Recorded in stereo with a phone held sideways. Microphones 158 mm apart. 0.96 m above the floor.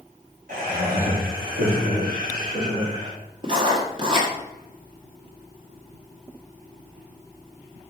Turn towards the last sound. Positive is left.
turn(degrees=-30)  # may be behind; listen again after turning